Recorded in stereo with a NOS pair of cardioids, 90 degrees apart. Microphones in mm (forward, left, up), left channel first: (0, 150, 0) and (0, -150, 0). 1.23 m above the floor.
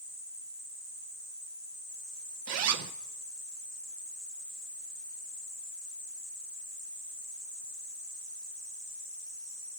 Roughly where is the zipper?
Ahead right.